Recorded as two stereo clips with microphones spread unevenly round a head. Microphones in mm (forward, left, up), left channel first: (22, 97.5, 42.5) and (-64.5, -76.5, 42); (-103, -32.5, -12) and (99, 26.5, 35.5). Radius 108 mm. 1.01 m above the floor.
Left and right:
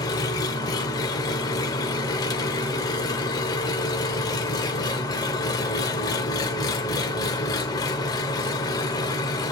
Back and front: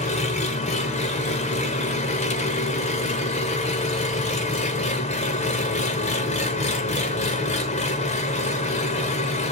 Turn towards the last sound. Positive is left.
turn(degrees=130)